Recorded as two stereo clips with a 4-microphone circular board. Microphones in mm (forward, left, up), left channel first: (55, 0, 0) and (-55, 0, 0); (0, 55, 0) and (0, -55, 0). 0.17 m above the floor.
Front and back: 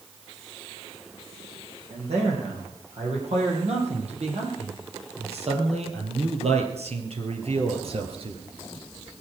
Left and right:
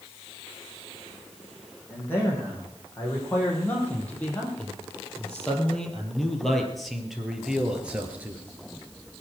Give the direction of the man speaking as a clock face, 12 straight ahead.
7 o'clock.